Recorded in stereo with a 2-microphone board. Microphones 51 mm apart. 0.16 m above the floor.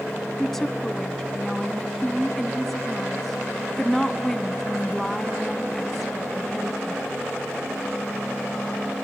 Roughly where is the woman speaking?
Centre.